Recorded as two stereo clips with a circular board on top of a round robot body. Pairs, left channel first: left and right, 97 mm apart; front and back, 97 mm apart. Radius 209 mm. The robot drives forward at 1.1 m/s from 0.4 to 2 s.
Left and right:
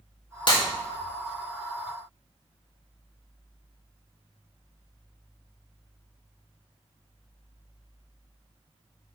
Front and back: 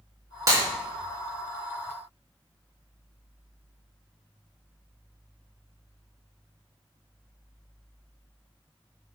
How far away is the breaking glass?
About 4 m.